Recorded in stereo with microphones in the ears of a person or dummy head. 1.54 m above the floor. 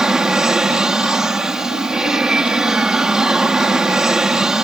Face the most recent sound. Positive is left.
turn(degrees=-5)  # may be behind; listen again after turning